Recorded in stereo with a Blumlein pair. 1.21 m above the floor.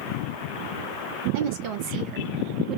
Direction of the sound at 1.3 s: 50° right.